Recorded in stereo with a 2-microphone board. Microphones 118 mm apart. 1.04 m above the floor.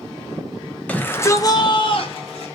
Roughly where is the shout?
Centre.